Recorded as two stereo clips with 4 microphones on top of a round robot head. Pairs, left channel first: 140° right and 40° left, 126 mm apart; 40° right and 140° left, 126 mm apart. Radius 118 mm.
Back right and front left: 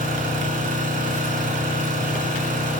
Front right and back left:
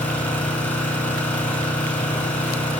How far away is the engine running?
About 4.5 m.